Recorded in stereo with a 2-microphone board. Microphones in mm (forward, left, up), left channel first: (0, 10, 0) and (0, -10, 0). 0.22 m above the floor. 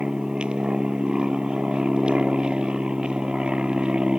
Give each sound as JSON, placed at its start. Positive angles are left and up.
{"t": 0.0, "sound": "an aircraft", "side_deg": -50}